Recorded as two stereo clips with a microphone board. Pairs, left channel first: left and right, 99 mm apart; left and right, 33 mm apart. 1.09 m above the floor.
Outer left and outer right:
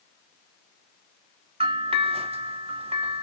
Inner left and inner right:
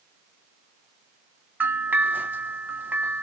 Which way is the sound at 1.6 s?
75° right (ahead or behind).